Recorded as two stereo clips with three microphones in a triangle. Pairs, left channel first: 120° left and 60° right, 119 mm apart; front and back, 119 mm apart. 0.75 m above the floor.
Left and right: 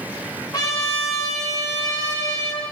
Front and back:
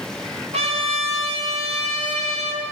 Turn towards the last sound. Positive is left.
turn(degrees=175)